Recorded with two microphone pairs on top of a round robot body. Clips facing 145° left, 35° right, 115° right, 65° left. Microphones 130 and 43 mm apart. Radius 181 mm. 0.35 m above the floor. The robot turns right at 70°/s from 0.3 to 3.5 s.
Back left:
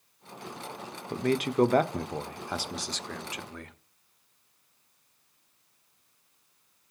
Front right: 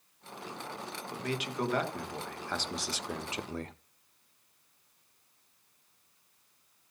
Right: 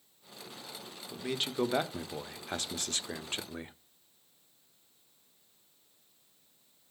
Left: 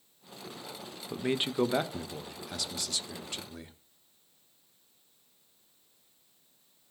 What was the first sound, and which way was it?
A man speaking, 120° left.